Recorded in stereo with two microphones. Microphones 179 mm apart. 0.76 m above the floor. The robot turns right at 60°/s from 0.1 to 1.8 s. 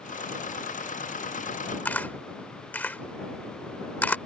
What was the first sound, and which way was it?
A camera shutter, 10° left (ahead or behind).